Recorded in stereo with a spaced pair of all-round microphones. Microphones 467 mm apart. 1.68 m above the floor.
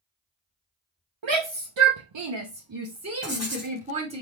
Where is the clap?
I don't hear a clap.